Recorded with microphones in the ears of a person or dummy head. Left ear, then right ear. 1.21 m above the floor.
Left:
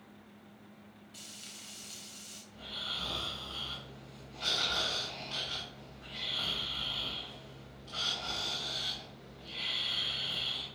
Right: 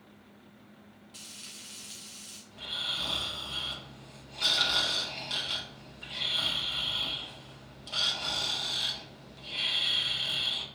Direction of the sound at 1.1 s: 5° right (ahead or behind).